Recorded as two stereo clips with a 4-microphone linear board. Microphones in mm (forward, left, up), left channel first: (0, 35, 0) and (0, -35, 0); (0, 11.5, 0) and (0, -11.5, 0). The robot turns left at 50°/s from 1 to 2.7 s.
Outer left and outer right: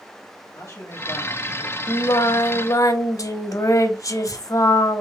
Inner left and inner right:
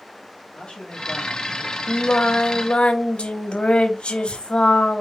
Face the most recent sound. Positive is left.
turn(degrees=70)